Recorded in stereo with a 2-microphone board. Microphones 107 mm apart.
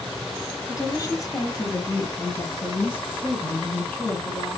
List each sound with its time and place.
0.7 s a woman speaking: 30° left (ahead or behind), 1.9 m; by 4.6 s 10° left (ahead or behind), 3.5 m